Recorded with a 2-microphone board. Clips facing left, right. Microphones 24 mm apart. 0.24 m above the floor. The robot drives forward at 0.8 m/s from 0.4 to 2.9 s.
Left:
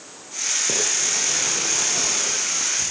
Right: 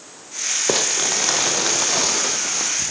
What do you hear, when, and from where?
0.7 s crumpling: 75° right (ahead or behind), 3 m; by 2.9 s 45° right (ahead or behind), 4 m